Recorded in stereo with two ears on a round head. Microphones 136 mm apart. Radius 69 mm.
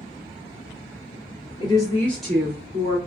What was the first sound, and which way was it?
A woman speaking, 30° left (ahead or behind).